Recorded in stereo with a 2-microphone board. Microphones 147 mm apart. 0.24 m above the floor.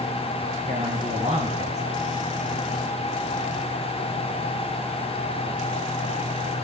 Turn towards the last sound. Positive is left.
turn(degrees=-50)  # may be behind; listen again after turning